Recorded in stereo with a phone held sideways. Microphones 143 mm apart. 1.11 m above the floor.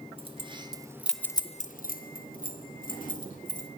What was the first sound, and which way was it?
Keys jangling, 40° right (ahead or behind).